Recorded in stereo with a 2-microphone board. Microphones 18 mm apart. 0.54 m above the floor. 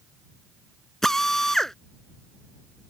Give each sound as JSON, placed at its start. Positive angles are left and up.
{"t": 1.0, "sound": "a drill", "side_deg": 20}